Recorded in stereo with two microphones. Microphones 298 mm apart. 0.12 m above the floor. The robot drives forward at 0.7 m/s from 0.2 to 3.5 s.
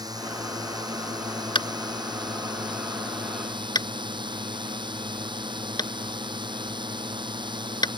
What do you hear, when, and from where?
0.0 s a drone: 15° right (ahead or behind)
1.6 s tapping: 15° left (ahead or behind)